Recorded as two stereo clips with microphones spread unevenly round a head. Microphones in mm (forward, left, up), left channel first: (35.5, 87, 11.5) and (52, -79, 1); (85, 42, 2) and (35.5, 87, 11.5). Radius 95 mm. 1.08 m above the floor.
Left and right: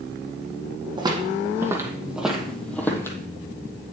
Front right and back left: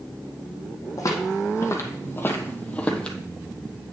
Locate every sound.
1.0 s footsteps: 25° right, 1.6 m; by 3.2 s 40° left, 1.3 m